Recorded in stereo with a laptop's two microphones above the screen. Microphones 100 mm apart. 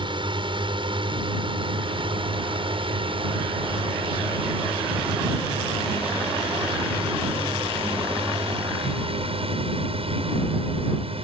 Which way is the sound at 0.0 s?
55° right (ahead or behind).